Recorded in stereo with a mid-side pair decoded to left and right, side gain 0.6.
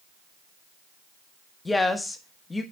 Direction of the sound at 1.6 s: 15° left.